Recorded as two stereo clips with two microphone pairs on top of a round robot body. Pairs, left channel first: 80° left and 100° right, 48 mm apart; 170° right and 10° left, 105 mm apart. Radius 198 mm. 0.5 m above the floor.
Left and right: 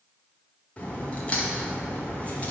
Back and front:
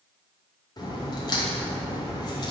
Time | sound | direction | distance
0.8 | a crack | 140° left | 2 m